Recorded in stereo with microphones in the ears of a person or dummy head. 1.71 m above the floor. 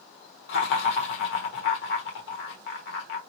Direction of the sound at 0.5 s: 60° left (ahead or behind).